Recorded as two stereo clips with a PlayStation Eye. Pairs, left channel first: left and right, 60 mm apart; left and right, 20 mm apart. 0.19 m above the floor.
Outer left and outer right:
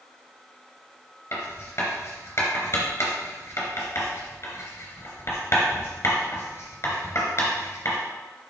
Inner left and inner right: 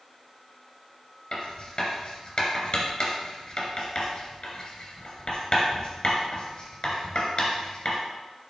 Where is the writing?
50° left (ahead or behind), 3 m.